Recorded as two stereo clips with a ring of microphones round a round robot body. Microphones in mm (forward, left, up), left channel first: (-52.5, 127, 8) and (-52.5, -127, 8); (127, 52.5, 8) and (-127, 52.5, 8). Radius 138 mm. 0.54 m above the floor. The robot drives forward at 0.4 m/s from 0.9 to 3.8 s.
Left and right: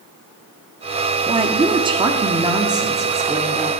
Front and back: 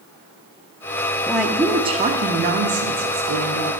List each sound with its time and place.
1.3 s a woman speaking: 85° right, 0.7 m; by 3.7 s 170° right, 1.2 m